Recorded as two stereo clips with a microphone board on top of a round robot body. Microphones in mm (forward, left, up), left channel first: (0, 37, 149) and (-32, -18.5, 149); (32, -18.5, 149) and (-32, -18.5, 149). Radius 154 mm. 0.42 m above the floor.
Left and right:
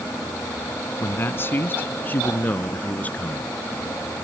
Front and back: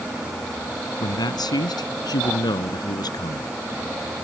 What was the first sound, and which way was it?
A man speaking, 5° left.